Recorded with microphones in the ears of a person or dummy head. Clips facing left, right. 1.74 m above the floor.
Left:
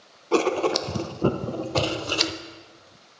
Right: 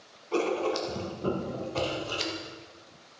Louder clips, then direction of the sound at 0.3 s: Left 6 dB; 70° left (ahead or behind).